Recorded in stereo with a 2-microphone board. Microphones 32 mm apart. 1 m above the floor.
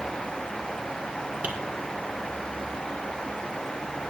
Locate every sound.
1.4 s tapping: 55° right (ahead or behind), 1.7 m